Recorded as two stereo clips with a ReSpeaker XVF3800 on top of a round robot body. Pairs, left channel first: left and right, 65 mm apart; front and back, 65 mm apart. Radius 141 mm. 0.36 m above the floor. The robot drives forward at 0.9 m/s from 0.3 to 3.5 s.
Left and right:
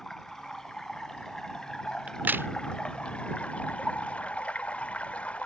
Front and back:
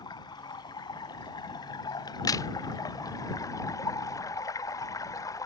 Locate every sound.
0.0 s running water: 5° left; by 5.5 s 20° left
2.1 s a crack: 20° right; by 2.5 s 35° right